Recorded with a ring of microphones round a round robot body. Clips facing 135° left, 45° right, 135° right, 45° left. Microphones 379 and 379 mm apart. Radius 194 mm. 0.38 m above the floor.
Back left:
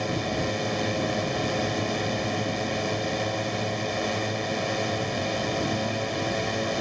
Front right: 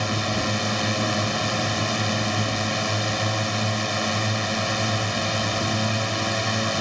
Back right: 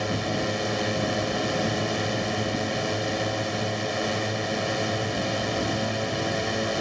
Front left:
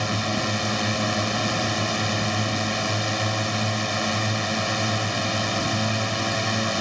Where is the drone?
5° right.